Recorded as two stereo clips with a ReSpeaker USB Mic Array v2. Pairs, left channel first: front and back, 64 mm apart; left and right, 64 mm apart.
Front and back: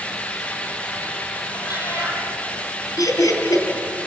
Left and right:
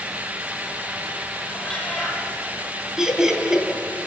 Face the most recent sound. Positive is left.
turn(degrees=-10)